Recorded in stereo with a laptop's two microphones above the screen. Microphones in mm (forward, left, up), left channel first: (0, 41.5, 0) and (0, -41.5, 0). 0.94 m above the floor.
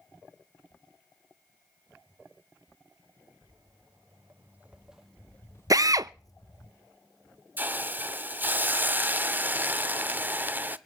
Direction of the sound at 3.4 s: 35° right (ahead or behind).